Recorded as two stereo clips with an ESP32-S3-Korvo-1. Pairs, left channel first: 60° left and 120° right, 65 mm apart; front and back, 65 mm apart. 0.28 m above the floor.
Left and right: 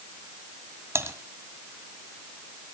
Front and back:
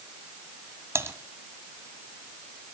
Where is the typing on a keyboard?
150° right, 1.7 m.